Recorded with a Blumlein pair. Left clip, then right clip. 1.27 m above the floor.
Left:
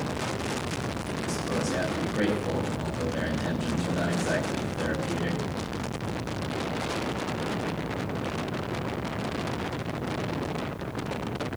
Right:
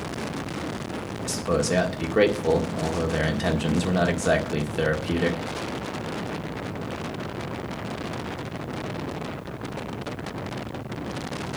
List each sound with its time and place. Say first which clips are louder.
1.2 s a man speaking: right 6 dB; 55° right, 1.6 m